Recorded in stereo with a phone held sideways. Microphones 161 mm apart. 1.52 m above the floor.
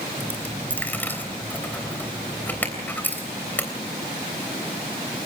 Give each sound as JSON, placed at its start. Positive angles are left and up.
{"t": 0.2, "sound": "a dropped coin", "side_deg": 10, "distance_m": 3.5}